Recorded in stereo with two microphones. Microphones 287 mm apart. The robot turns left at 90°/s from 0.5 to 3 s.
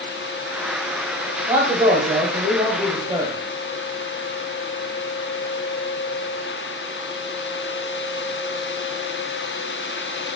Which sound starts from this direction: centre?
A man speaking, at 1.5 s.